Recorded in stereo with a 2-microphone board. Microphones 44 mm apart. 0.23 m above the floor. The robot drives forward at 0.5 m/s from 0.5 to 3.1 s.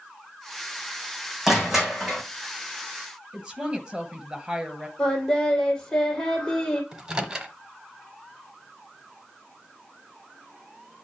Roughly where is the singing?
Centre.